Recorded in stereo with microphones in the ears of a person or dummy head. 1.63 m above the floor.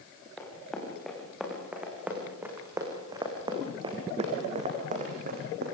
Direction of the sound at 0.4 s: 5° left (ahead or behind).